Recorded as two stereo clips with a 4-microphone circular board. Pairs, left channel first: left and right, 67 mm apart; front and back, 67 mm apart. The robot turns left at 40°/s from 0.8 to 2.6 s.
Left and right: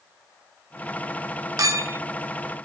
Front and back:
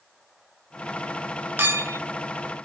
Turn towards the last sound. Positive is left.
turn(degrees=-160)